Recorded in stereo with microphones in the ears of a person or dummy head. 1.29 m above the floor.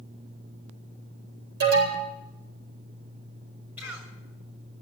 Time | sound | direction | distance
1.6 | an alarm | 60° right (ahead or behind) | 7.5 m
3.8 | a cough | 10° right (ahead or behind) | 7.5 m